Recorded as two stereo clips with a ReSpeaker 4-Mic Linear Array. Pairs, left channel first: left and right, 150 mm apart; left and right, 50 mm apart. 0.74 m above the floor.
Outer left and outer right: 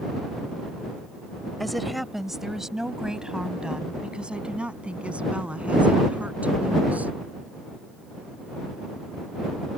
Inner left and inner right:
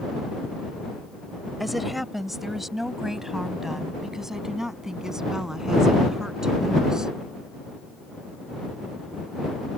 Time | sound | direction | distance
1.6 | a woman speaking | centre (ahead or behind) | ?